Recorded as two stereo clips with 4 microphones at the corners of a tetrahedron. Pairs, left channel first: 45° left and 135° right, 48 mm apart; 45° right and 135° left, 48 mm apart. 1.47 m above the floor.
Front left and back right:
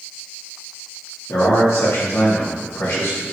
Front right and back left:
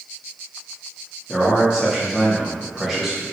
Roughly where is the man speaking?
Ahead left.